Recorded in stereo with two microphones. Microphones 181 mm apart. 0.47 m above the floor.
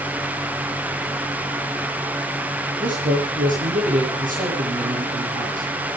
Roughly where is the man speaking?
Right.